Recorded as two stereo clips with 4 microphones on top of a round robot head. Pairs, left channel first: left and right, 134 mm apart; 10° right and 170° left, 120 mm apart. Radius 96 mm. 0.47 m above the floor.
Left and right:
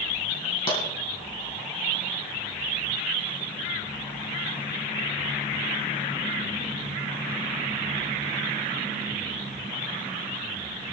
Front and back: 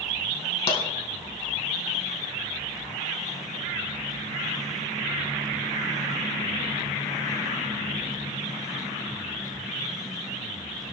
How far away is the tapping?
About 4 m.